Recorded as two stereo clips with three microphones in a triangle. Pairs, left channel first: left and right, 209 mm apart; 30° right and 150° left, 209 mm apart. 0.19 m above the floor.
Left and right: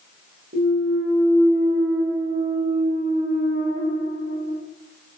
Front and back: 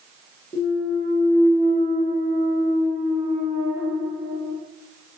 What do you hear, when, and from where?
0.5 s a clunk: 90° right, 5 m